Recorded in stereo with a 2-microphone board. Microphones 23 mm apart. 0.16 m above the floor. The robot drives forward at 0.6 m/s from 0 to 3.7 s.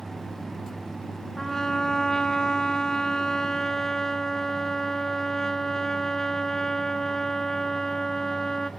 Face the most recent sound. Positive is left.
turn(degrees=20)  # may be behind; listen again after turning